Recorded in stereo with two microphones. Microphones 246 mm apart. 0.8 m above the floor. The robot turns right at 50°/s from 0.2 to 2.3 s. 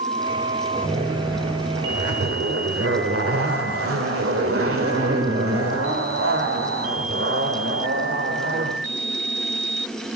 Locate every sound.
0.7 s a zipper: 150° right, 1.8 m; by 8.8 s 70° right, 1.8 m